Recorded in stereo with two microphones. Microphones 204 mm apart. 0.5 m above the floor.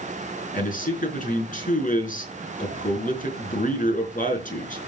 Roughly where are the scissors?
I don't hear scissors.